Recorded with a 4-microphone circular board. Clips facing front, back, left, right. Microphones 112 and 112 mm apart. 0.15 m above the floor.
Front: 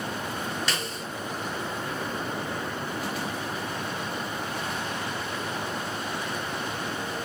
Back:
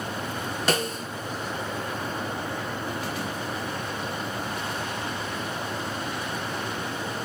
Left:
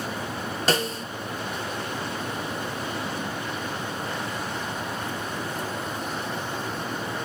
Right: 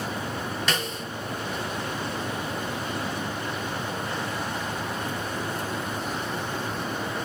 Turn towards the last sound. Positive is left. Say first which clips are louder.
# back 6 dB, left 4 dB
turn(degrees=140)